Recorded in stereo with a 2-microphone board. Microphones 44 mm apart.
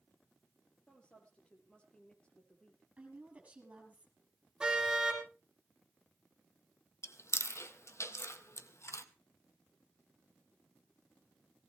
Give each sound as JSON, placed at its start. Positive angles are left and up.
{"t": 0.9, "sound": "a woman speaking", "side_deg": 20, "distance_m": 5.0}
{"t": 3.0, "sound": "a woman speaking", "side_deg": -25, "distance_m": 5.5}
{"t": 4.6, "sound": "a car horn", "side_deg": -15, "distance_m": 5.5}
{"t": 7.0, "sound": "chewing", "side_deg": 90, "distance_m": 1.1}